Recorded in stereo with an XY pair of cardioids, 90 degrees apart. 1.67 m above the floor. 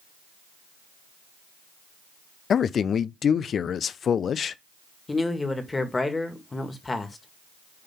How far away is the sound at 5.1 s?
About 1.9 m.